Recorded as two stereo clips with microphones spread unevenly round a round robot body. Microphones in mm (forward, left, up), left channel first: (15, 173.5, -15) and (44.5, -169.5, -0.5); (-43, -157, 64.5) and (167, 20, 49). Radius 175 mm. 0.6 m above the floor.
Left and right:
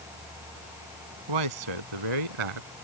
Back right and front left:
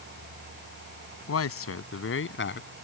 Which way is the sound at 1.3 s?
105° right.